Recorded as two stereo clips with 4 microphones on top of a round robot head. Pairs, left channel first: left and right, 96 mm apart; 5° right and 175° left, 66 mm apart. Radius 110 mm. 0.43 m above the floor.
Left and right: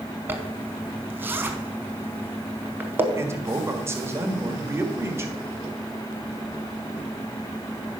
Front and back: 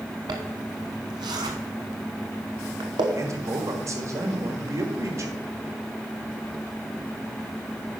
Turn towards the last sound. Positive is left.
turn(degrees=-150)